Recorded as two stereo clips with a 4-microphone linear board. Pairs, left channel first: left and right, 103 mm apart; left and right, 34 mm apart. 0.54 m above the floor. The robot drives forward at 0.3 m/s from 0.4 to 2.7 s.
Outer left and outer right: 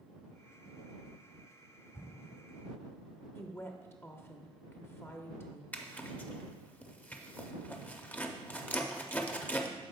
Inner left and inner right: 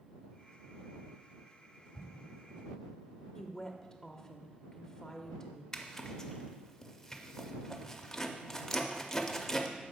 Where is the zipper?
15° left (ahead or behind), 0.5 m.